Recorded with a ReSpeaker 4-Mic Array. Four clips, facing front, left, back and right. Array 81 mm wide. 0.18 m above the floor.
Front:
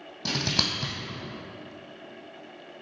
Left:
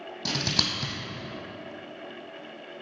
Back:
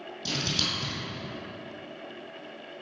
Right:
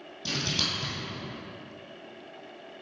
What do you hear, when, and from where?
0.2 s scissors: 30° left, 1.9 m